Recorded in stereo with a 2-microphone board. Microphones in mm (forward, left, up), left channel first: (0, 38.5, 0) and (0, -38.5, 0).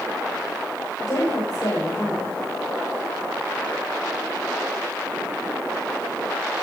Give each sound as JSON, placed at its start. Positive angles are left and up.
{"t": 1.0, "sound": "a woman speaking", "side_deg": 55, "distance_m": 7.0}